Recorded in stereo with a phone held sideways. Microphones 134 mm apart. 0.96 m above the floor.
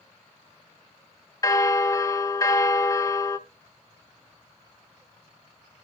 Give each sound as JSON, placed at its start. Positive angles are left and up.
{"t": 1.4, "sound": "a bell", "side_deg": 25, "distance_m": 0.6}